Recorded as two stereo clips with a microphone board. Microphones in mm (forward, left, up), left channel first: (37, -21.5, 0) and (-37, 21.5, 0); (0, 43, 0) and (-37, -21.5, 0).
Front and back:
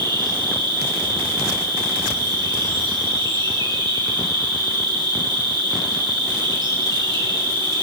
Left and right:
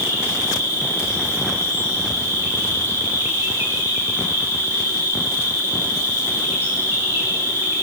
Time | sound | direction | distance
0.0 | an insect | straight behind | 10 m